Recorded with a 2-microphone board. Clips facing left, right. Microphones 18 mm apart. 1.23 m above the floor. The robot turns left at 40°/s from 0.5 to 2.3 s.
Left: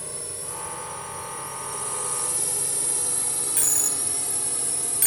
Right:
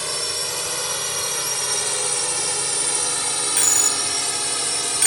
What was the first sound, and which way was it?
A drone, 65° right (ahead or behind).